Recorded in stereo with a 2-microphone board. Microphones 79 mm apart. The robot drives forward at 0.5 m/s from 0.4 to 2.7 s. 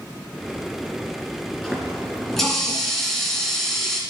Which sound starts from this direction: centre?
A running tap, at 1.6 s.